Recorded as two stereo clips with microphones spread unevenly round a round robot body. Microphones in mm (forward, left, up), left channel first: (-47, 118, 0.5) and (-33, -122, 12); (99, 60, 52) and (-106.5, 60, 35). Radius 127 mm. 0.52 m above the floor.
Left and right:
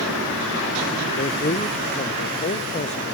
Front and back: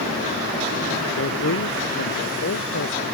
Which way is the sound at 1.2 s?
30° left.